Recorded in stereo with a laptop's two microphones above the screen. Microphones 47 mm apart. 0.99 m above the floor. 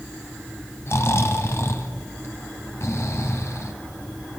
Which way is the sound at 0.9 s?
70° left (ahead or behind).